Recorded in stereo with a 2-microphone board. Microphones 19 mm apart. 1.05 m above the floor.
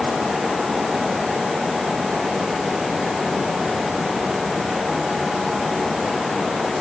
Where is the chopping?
I don't hear chopping.